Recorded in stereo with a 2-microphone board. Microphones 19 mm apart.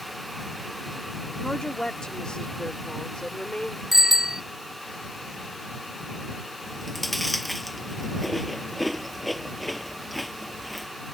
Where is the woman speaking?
40° left (ahead or behind); by 3.8 s 55° left (ahead or behind).